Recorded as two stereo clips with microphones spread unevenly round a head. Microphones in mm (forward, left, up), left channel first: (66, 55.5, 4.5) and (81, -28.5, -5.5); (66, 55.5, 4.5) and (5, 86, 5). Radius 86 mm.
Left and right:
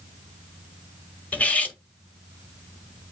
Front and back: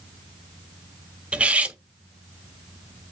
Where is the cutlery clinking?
115° left, 0.6 m.